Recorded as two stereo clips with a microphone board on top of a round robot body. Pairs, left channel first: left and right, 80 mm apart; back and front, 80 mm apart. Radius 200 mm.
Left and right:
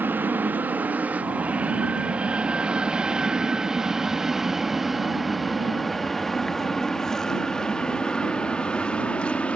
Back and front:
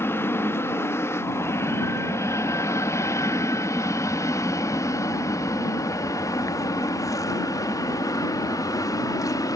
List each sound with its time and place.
0.0 s an aircraft: 140° right; by 9.6 s 160° left